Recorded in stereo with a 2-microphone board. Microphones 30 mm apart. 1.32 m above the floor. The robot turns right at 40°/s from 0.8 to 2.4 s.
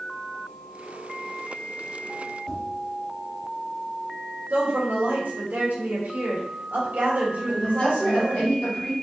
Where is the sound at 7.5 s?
45° left (ahead or behind), 1.6 m.